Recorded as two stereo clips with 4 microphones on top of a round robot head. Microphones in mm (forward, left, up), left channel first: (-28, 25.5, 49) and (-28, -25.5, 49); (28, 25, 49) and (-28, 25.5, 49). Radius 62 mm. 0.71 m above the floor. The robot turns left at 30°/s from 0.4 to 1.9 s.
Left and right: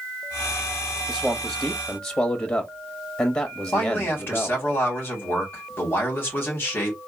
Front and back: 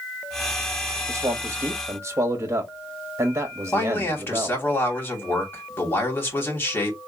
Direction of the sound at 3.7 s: 45° left.